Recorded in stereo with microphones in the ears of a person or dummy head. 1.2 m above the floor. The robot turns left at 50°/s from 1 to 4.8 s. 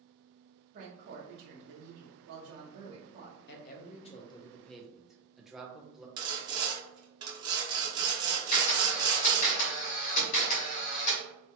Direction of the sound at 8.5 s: 45° left (ahead or behind).